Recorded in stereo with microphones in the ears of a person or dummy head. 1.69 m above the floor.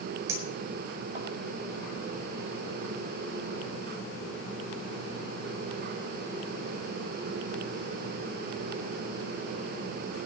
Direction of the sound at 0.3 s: 15° right (ahead or behind).